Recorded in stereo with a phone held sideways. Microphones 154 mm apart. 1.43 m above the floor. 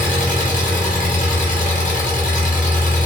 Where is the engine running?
60° left (ahead or behind), 0.9 m.